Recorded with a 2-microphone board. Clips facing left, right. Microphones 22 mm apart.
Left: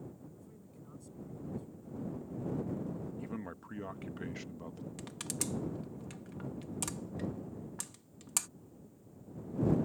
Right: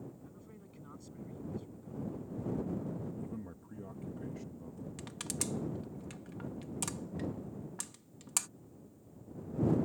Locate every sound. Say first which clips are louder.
0.2 s a man speaking: even; 35° right (ahead or behind)
3.2 s a man speaking: left 2 dB; 70° left (ahead or behind)
5.0 s crushing: even; centre (ahead or behind)